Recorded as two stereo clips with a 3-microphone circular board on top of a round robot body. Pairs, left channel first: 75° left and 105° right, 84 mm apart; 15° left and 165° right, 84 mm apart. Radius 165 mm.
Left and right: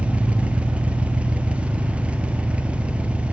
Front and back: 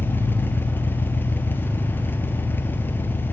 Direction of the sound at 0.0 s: 35° right.